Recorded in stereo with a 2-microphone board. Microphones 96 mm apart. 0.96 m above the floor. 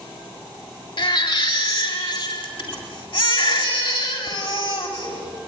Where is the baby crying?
60° left (ahead or behind), 3.5 m.